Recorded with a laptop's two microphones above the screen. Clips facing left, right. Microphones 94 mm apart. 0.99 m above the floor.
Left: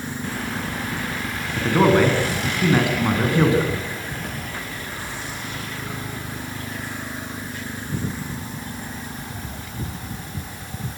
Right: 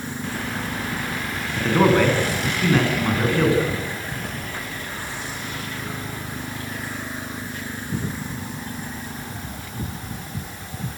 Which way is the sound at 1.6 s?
5° left (ahead or behind).